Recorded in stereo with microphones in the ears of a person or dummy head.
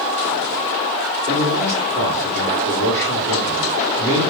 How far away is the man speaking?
About 2 m.